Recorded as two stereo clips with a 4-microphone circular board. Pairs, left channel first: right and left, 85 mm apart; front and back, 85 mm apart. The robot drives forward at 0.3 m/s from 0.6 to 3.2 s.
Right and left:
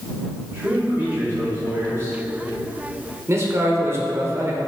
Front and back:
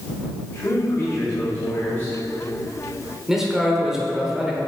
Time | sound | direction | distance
0.5 | a man speaking | 40° left | 1.8 m
3.3 | a man speaking | 100° left | 1.2 m